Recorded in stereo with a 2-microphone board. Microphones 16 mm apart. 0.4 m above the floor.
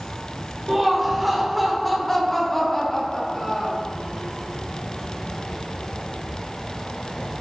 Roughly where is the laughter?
Right.